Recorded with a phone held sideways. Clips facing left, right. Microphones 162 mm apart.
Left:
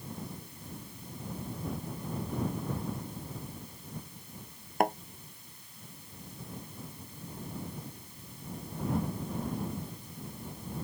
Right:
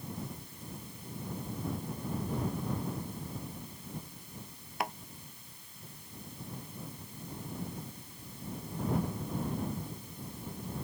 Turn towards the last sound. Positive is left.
turn(degrees=45)  # may be behind; listen again after turning